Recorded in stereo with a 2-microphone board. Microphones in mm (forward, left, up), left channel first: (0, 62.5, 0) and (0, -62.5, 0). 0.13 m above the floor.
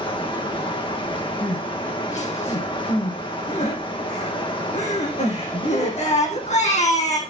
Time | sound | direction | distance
0.0 | running water | 40° left (ahead or behind) | 2.5 m
1.4 | crying | 65° left (ahead or behind) | 4.5 m